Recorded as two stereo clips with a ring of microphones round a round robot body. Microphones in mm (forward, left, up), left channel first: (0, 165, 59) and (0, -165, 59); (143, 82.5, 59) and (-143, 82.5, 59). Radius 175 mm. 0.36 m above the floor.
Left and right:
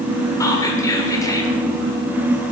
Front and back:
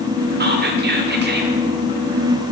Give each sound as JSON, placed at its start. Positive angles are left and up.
{"t": 0.4, "sound": "whispering", "azimuth_deg": 165, "distance_m": 1.3}